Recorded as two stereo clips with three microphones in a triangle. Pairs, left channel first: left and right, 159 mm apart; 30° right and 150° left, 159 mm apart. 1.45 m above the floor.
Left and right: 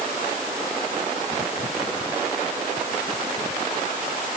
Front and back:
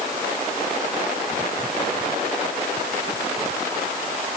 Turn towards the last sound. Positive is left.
No sound to turn to.